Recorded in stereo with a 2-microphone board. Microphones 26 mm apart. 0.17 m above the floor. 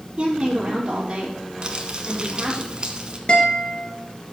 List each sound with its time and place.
0.2 s a woman speaking: 35° right (ahead or behind), 5 m
1.6 s crumpling: 35° right (ahead or behind), 1.6 m
3.3 s a guitar: 40° left (ahead or behind), 2.5 m